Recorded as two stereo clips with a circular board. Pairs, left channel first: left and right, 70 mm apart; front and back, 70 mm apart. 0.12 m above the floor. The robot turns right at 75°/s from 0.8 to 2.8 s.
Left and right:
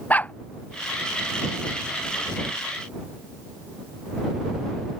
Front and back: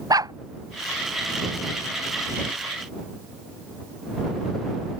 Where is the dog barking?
155° left.